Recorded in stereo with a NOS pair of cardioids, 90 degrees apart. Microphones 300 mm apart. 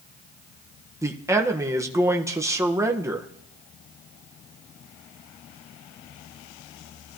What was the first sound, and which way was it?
A man speaking, 10° right.